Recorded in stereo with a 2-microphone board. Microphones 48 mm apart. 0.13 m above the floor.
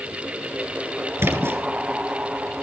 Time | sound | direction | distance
1.2 | a splash | 60° right (ahead or behind) | 3 m